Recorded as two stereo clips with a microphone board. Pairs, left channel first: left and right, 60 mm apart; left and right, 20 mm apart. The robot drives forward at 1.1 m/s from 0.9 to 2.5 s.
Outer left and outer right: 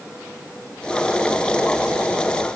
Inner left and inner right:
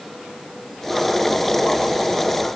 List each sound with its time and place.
Only background noise.